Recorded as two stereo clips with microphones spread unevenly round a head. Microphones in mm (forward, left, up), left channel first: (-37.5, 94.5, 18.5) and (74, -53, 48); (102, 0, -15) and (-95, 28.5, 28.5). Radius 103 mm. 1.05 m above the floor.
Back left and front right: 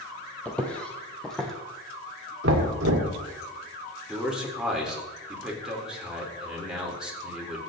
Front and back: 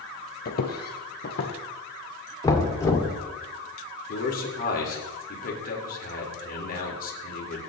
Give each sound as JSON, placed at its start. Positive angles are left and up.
{"t": 0.5, "sound": "footsteps", "azimuth_deg": 40, "distance_m": 1.9}
{"t": 2.4, "sound": "knocking", "azimuth_deg": -85, "distance_m": 1.9}
{"t": 4.1, "sound": "a man speaking", "azimuth_deg": 35, "distance_m": 4.0}